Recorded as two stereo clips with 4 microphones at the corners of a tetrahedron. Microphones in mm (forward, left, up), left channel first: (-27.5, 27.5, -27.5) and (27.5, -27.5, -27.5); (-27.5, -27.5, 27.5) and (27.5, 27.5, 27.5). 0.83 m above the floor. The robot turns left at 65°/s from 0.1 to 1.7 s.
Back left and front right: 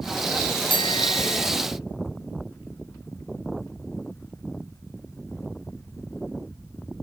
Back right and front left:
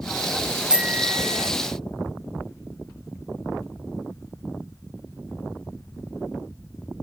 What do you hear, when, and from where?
0.7 s a bicycle bell: 125° left; by 1.5 s 70° left